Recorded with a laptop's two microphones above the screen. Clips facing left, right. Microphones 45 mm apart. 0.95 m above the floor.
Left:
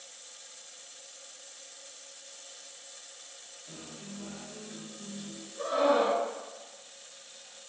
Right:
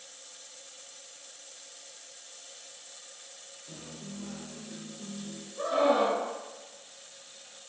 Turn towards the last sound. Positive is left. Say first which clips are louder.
# right 1 dB
turn(degrees=-25)  # may be behind; listen again after turning